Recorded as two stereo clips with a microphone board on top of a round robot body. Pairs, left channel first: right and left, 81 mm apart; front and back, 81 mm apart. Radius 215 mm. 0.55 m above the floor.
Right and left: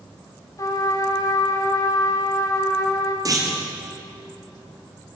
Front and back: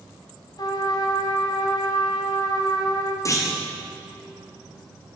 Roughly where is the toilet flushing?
I don't hear a toilet flushing.